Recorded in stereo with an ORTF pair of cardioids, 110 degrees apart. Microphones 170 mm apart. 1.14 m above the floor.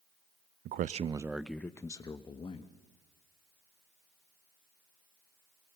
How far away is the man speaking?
About 0.6 m.